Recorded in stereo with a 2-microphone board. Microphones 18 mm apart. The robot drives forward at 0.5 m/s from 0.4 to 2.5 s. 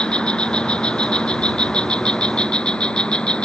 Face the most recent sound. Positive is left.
turn(degrees=65)  # may be behind; listen again after turning